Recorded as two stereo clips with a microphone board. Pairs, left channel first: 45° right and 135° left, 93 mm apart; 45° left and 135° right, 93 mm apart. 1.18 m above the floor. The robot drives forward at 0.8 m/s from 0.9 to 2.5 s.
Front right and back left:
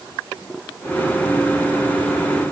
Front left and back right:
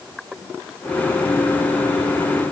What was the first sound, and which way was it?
Only background noise.